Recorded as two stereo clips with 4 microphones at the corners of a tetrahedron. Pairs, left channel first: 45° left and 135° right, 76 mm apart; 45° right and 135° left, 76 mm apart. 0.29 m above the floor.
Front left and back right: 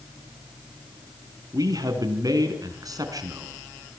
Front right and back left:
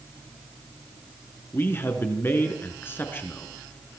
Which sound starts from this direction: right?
A man speaking, at 1.5 s.